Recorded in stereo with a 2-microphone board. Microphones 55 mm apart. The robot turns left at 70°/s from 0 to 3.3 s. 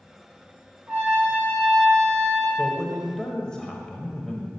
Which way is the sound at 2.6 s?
155° right.